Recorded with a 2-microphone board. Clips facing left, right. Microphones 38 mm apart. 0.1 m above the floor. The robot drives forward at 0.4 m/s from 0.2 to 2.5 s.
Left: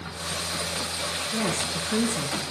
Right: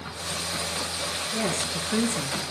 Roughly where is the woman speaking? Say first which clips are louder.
Even; left.